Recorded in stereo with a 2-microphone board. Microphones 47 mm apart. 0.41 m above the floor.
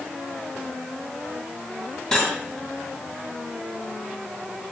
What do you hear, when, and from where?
2.1 s cutlery clinking: 20° left (ahead or behind), 2 m